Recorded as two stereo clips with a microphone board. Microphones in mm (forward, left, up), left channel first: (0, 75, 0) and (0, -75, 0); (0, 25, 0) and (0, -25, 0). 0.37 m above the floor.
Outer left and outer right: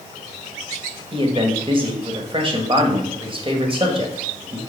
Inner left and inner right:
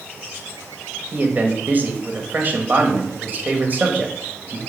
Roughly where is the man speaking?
Right.